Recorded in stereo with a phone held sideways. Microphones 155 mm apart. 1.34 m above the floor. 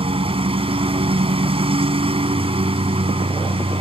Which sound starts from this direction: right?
A lawn mower, at 0.0 s.